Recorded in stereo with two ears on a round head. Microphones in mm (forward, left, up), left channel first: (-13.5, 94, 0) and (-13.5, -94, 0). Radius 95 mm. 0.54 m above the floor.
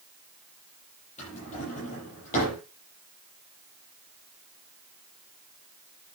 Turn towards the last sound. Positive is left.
turn(degrees=35)  # may be behind; listen again after turning